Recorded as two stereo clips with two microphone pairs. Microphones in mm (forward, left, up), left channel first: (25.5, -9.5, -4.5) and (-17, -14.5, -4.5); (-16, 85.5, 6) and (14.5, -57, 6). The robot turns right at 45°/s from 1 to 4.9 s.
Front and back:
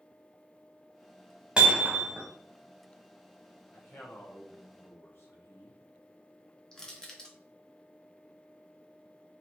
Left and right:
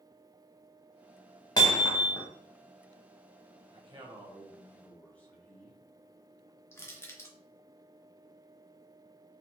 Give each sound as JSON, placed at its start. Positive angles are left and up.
{"t": 1.6, "sound": "hammering", "azimuth_deg": 140, "distance_m": 1.0}
{"t": 3.7, "sound": "a man speaking", "azimuth_deg": -30, "distance_m": 1.0}
{"t": 6.7, "sound": "crushing", "azimuth_deg": 55, "distance_m": 0.7}